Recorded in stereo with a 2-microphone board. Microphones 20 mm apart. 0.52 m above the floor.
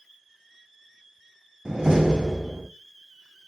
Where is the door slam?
45° right (ahead or behind), 2.5 m.